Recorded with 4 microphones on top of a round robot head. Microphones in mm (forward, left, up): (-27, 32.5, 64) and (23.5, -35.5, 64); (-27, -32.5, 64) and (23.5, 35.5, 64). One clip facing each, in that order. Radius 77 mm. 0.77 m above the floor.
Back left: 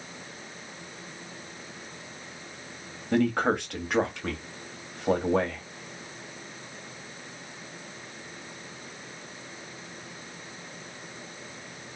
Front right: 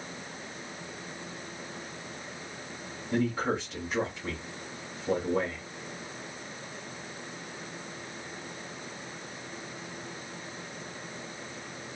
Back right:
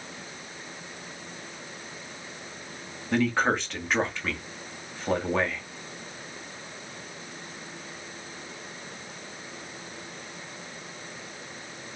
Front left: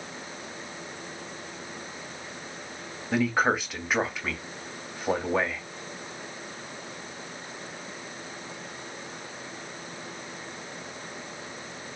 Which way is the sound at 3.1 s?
135° left.